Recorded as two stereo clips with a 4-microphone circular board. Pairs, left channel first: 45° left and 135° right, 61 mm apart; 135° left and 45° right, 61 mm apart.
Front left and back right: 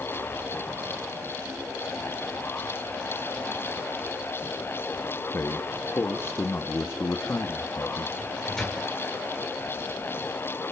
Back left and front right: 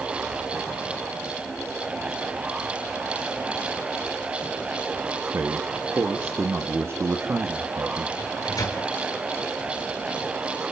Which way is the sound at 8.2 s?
125° left.